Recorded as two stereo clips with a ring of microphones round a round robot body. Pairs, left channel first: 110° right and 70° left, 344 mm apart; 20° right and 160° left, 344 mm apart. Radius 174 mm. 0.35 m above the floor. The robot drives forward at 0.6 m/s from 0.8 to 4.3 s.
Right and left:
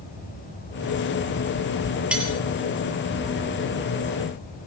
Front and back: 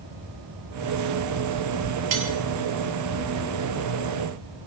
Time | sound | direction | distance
2.1 | cutlery clinking | 155° left | 5 m